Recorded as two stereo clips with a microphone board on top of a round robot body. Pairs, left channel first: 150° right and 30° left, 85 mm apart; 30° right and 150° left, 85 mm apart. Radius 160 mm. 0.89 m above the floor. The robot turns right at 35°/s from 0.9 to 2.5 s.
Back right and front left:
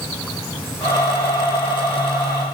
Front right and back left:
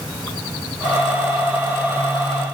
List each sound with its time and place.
Only background noise.